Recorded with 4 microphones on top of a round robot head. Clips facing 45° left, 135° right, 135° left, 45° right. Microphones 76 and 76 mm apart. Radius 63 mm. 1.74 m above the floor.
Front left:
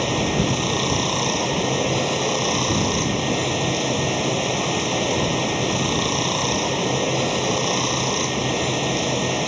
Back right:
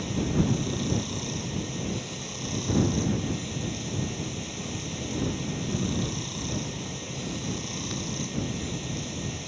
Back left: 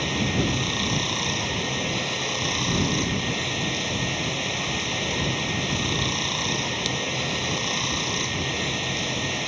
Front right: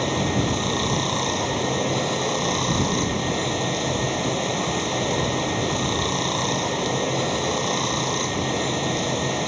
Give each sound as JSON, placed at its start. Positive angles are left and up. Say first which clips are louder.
{"t": 0.0, "sound": "running water", "louder": "front left 6 dB, front right 3 dB", "azimuth_deg": 20}